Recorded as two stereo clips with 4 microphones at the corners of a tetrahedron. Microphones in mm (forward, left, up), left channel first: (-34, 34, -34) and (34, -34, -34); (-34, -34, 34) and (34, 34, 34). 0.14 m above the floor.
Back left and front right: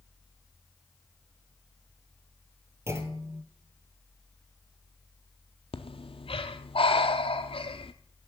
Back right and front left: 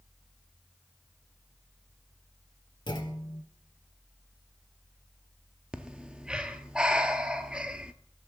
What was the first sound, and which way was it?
A clunk, 100° right.